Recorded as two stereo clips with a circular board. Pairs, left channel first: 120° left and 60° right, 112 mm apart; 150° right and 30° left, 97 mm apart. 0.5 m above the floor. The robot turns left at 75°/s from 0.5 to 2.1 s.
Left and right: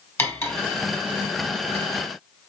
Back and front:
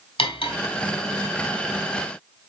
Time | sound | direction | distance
0.2 | cutlery clinking | 170° right | 2.0 m